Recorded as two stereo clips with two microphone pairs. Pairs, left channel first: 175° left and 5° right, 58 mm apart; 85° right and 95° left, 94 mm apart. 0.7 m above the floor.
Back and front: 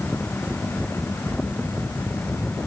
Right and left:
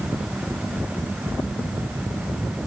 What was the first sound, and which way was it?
Only background noise.